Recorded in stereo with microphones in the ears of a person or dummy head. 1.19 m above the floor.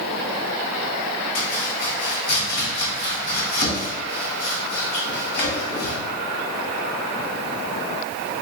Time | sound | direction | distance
1.4 | chopping | 50° left (ahead or behind) | 1.0 m